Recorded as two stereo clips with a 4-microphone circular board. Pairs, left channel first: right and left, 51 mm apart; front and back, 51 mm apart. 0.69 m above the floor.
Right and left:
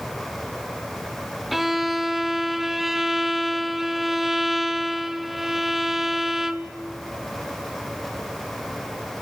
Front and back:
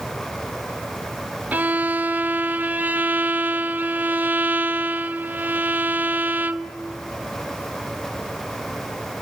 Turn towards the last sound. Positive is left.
turn(degrees=175)